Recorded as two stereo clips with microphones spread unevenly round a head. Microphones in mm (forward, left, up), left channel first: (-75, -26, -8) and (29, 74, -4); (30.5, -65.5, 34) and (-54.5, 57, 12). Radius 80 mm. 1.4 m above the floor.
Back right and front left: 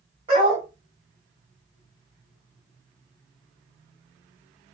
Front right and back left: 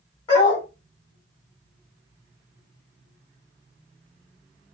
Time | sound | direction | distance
0.3 | a dog barking | 5° right | 2 m